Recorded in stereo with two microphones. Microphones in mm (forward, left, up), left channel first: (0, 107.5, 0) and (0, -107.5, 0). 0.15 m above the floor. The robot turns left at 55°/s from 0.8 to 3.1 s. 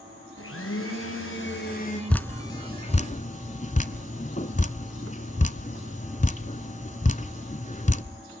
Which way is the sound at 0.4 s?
100° left.